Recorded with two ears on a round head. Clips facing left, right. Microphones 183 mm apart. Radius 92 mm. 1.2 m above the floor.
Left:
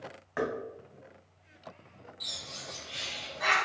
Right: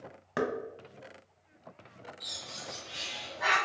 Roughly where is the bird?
Left.